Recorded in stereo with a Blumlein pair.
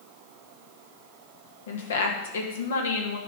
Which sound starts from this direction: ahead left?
A woman speaking, at 1.7 s.